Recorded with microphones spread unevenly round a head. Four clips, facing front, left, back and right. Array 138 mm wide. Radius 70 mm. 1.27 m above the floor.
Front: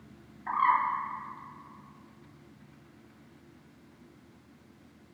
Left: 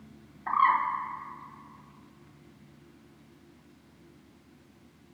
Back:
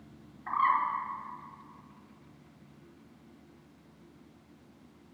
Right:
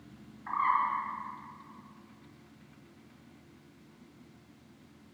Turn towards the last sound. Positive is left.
turn(degrees=100)